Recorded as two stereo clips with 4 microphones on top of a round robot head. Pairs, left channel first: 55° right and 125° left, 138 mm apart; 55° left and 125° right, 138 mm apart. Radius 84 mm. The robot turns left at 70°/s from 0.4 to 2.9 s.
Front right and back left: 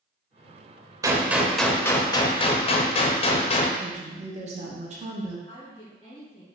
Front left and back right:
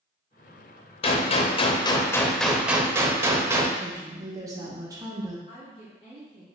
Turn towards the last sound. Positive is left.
turn(degrees=5)